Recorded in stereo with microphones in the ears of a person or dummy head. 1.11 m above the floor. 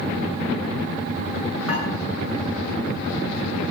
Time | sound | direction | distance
1.7 | dishes clattering | 80° right | 9 m